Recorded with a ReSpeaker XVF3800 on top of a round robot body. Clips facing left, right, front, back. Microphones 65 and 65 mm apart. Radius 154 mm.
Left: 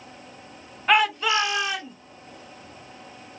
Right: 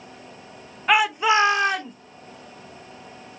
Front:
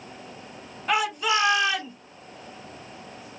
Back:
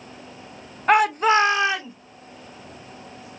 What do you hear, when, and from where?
0.9 s a shout: 175° right, 0.9 m; by 1.9 s 115° right, 1.0 m